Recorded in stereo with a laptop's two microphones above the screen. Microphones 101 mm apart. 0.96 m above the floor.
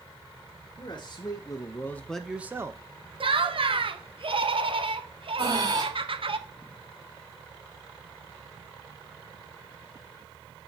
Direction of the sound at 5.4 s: 40° right (ahead or behind).